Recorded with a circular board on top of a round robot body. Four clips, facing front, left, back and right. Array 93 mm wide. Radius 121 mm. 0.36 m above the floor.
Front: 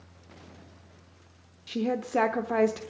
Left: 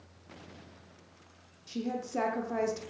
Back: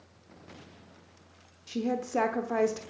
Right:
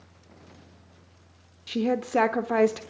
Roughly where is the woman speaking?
Right.